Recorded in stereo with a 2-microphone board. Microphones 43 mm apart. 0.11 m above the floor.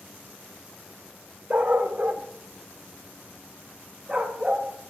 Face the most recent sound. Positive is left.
turn(degrees=-10)  # may be behind; listen again after turning